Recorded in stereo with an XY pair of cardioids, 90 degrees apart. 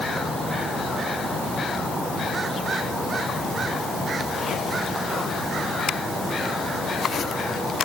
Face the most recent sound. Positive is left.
No sound to turn to.